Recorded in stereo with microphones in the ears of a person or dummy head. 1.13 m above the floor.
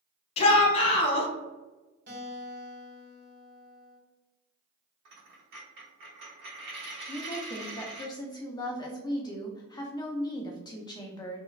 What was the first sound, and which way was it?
A shout, 30° left (ahead or behind).